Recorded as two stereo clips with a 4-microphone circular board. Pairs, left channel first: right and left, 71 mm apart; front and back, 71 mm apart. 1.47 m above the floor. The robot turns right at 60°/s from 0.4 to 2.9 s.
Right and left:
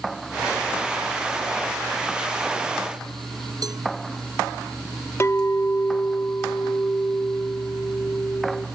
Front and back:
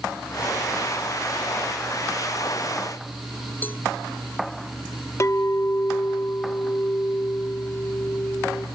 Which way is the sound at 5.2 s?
40° right.